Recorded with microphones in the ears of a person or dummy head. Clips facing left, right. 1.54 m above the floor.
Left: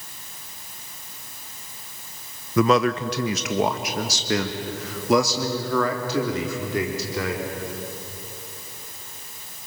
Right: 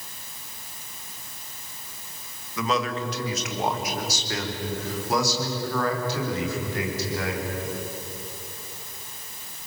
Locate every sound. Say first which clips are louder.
2.6 s a man speaking: left 8 dB; 45° left (ahead or behind), 0.9 m; by 7.4 s 65° left (ahead or behind), 3.5 m